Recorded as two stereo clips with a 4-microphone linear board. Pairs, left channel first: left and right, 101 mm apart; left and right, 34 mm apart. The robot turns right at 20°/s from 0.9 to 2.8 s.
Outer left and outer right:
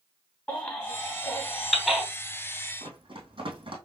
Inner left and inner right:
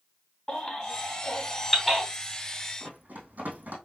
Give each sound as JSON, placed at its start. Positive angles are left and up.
{"t": 0.5, "sound": "a baby crying", "side_deg": 15, "distance_m": 3.0}
{"t": 2.8, "sound": "running footsteps", "side_deg": -55, "distance_m": 2.5}